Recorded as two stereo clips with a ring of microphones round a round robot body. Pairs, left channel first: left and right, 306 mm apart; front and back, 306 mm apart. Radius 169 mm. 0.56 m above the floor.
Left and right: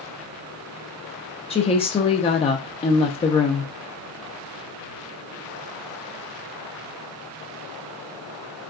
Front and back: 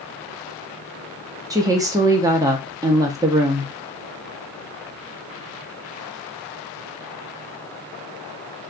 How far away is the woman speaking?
About 0.7 m.